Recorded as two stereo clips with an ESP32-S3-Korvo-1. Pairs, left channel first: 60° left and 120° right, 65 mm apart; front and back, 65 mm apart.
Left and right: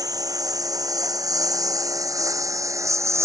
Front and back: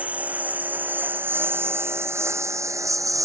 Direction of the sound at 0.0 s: 115° right.